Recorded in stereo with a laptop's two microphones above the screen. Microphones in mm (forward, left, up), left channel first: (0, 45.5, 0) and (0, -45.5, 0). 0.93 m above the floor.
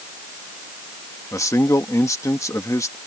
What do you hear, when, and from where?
1.3 s a man speaking: 30° left (ahead or behind)